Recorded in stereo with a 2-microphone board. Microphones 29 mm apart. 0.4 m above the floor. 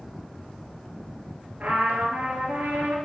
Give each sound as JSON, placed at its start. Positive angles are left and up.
{"t": 1.6, "sound": "a trumpet", "side_deg": -60, "distance_m": 2.0}